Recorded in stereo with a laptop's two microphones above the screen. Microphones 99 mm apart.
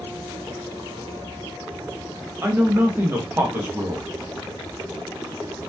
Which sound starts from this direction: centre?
A zipper, at 4.2 s.